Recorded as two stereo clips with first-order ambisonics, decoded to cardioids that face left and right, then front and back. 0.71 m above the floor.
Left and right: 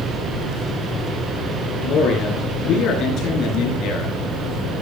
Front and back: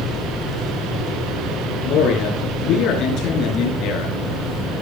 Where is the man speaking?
40° left, 8 m.